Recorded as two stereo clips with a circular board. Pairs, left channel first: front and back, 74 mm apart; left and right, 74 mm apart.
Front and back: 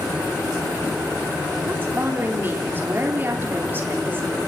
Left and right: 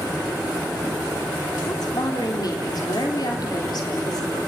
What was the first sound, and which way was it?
A woman speaking, 120° left.